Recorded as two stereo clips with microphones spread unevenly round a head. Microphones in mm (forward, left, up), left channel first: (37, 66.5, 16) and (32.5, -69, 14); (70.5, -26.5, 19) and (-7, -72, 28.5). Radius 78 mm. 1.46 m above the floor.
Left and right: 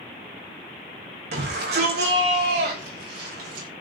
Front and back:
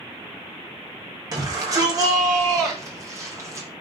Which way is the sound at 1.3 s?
105° right.